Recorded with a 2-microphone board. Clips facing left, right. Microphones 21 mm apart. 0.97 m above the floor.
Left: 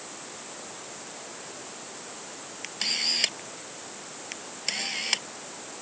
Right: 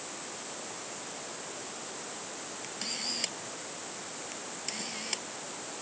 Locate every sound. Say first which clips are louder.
2.6 s a camera shutter: left 9 dB; 45° left (ahead or behind)